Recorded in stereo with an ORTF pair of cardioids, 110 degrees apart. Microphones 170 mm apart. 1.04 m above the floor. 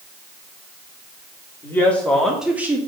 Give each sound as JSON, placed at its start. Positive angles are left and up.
{"t": 1.6, "sound": "a woman speaking", "azimuth_deg": 15, "distance_m": 3.0}